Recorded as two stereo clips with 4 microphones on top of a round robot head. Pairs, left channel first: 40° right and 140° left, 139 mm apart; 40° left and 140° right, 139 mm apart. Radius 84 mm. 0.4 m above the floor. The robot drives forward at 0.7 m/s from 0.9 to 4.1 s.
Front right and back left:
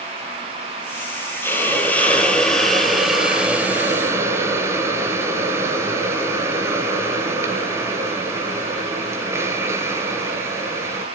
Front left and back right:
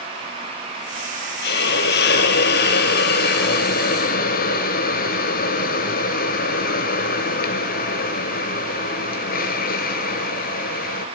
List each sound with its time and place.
1.4 s a hiss: 40° left, 3.5 m; by 11.1 s 65° left, 2.5 m